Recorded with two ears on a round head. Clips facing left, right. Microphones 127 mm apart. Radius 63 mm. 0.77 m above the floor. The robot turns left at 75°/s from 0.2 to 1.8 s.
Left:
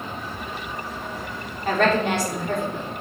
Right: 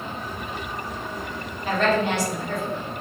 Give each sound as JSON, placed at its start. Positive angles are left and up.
{"t": 1.6, "sound": "a woman speaking", "side_deg": 40, "distance_m": 2.5}